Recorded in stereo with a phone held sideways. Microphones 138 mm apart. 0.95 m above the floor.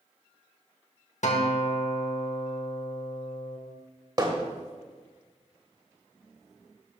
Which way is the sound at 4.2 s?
35° right (ahead or behind).